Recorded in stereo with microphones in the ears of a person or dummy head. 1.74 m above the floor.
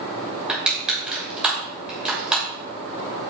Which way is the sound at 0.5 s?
Centre (ahead or behind).